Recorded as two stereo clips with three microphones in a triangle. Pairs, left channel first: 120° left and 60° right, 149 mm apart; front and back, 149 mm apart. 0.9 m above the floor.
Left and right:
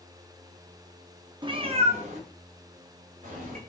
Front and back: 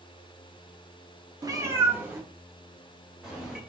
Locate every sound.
1.4 s a cat meowing: 120° right, 0.5 m; by 3.6 s 90° right, 1.7 m